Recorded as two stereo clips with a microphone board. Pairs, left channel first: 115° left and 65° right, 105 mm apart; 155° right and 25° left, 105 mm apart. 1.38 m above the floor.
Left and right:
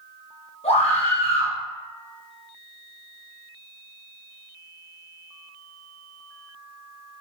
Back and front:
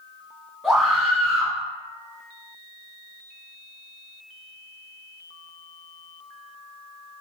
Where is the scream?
110° left, 1.0 m.